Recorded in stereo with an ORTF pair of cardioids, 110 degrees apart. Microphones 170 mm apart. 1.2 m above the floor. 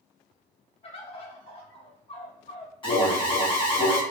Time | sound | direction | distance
0.8 | a bird | 40° left | 1.2 m
2.8 | an alarm | 30° left | 1.3 m